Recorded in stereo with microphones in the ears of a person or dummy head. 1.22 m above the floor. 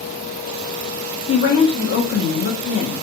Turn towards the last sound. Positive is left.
turn(degrees=55)  # may be behind; listen again after turning